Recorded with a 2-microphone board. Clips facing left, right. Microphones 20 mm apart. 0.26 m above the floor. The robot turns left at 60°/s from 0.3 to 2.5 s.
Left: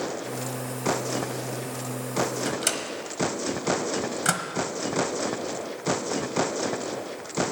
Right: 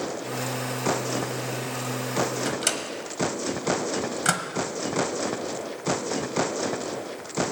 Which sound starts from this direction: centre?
A microwave, at 2.5 s.